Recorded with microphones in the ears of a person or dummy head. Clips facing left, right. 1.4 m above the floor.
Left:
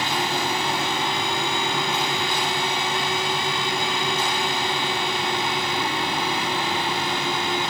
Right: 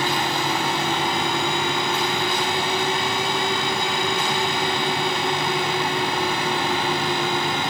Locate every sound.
Only background noise.